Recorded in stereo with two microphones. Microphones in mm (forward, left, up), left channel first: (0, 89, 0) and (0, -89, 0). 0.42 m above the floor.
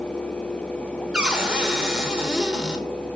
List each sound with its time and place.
1.1 s a cupboard door: 5° right (ahead or behind), 1.1 m